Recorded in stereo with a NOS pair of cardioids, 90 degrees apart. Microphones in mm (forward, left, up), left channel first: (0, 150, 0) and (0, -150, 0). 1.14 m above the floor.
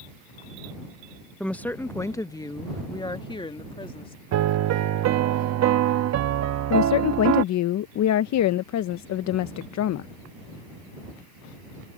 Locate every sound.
1.4 s a woman speaking: 5° left; by 4.2 s 20° left
4.3 s a piano: 60° right
6.7 s a woman speaking: 65° left